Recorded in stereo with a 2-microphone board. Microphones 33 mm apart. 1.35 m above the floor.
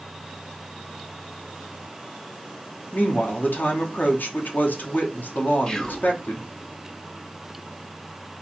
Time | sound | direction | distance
2.9 | a woman speaking | 60° left (ahead or behind) | 0.9 m
5.7 | whispering | 25° left (ahead or behind) | 0.9 m